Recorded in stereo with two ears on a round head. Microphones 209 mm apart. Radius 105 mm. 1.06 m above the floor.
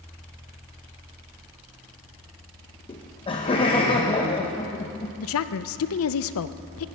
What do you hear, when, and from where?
2.9 s laughter: 20° left (ahead or behind), 0.9 m
5.2 s a woman speaking: 60° left (ahead or behind), 0.6 m